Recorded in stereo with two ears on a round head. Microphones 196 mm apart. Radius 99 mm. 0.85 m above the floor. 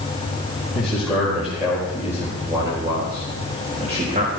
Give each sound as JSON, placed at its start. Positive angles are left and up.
{"t": 0.7, "sound": "a man speaking", "side_deg": 0, "distance_m": 4.5}